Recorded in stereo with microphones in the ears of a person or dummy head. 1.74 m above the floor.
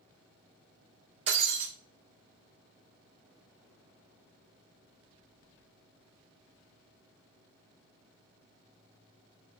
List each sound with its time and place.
1.3 s breaking glass: 35° right (ahead or behind), 6 m